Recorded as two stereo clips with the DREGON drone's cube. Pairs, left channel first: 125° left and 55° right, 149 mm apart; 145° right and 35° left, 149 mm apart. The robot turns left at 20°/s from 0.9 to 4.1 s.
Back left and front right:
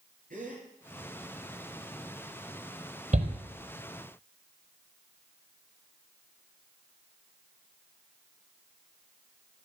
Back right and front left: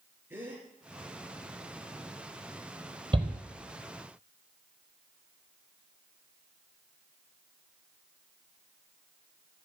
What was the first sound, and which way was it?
A gasp, 40° right.